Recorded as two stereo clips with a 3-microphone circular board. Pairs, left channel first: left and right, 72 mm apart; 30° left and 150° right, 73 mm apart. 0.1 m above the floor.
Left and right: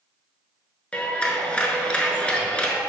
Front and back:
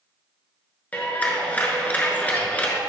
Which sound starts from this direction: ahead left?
A clap, at 0.9 s.